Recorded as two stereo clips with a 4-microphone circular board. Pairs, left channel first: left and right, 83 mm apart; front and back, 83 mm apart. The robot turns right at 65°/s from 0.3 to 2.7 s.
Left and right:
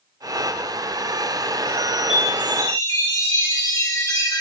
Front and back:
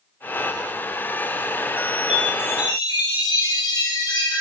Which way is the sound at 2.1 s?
5° right.